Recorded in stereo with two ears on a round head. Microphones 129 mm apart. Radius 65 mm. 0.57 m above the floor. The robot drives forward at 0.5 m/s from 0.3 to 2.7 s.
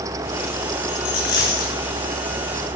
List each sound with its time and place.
0.9 s a dropped coin: 70° left (ahead or behind), 6.5 m